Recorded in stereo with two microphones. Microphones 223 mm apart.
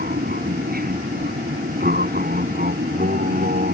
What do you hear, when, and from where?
0.0 s an aircraft: 40° right (ahead or behind)